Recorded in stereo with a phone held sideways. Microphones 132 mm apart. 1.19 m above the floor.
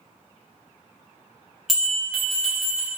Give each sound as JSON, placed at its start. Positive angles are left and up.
{"t": 1.7, "sound": "a bell", "side_deg": 0, "distance_m": 1.4}